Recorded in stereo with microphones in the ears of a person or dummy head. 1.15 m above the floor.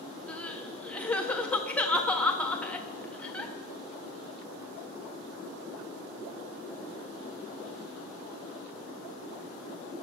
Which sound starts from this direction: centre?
Crying, at 0.3 s.